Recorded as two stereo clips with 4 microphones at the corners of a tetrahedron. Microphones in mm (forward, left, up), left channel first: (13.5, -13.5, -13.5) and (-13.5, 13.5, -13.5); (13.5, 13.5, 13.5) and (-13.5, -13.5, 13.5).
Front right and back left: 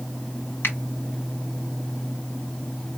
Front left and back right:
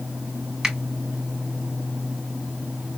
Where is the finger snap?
60° right, 2 m.